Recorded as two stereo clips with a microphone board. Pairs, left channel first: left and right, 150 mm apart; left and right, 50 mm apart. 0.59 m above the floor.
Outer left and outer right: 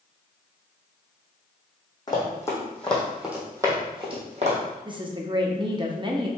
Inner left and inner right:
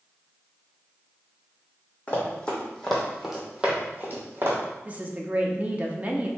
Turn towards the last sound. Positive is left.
turn(degrees=-30)  # may be behind; listen again after turning